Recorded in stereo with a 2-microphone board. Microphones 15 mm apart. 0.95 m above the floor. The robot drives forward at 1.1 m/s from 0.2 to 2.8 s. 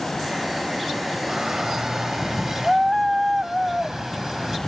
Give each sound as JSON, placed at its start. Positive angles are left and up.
{"t": 1.3, "sound": "a shout", "side_deg": -45}